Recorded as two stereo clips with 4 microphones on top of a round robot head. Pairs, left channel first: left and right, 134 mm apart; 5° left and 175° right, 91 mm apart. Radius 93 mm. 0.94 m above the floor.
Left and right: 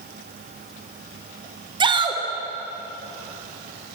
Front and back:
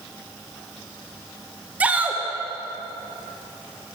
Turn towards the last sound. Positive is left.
turn(degrees=-115)